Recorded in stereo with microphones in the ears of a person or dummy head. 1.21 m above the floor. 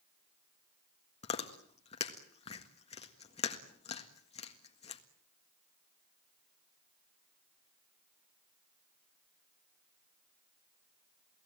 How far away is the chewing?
About 1.7 m.